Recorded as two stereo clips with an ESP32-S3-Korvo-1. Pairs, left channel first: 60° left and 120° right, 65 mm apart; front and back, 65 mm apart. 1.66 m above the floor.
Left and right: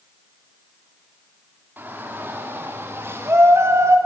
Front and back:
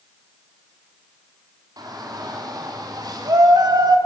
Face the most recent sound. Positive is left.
turn(degrees=-165)